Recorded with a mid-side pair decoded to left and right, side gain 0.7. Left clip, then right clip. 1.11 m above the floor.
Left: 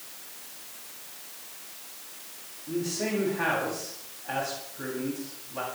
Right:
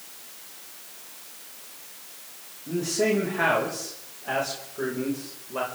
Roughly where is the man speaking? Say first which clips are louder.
Right 6 dB; ahead right.